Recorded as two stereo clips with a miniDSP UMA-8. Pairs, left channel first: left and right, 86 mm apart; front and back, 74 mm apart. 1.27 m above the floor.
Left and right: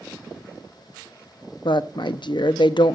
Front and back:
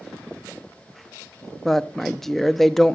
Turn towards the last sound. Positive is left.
turn(degrees=85)